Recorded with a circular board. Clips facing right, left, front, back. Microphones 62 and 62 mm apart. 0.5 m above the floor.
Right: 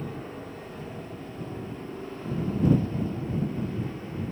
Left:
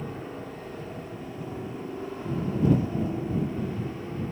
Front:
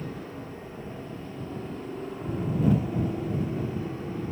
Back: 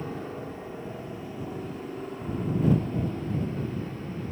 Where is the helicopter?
165° left; by 4.3 s 40° left.